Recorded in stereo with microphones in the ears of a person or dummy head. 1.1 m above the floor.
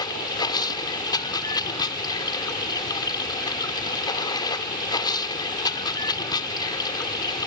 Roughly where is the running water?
Left.